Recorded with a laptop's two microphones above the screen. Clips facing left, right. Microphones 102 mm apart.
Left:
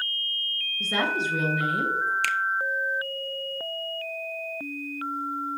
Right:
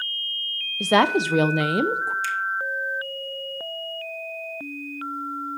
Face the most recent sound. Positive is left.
turn(degrees=65)  # may be behind; listen again after turning